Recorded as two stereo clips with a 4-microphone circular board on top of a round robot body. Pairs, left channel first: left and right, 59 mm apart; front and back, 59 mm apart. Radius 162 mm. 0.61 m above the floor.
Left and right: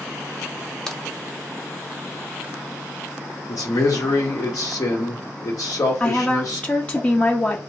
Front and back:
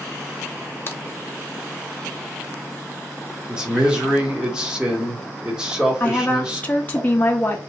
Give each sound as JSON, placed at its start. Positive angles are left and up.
{"t": 0.9, "sound": "a crack", "azimuth_deg": 15, "distance_m": 1.1}
{"t": 3.5, "sound": "a man speaking", "azimuth_deg": 105, "distance_m": 1.6}
{"t": 6.0, "sound": "a woman speaking", "azimuth_deg": 45, "distance_m": 0.8}